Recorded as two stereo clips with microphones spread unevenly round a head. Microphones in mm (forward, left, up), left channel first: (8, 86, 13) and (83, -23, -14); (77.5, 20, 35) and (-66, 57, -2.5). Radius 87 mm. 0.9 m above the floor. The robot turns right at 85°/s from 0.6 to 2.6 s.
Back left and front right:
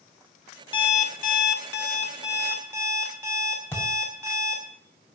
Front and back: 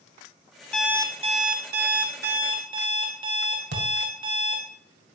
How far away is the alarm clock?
About 1.9 m.